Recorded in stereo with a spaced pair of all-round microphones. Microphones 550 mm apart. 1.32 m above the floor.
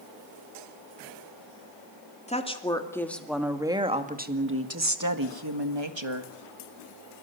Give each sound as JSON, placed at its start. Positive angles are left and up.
{"t": 2.3, "sound": "a woman speaking", "side_deg": 10, "distance_m": 2.5}